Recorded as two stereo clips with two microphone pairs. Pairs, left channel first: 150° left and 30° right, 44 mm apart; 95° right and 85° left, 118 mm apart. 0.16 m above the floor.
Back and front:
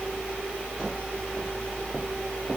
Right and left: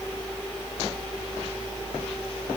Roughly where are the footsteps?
No footsteps in this recording.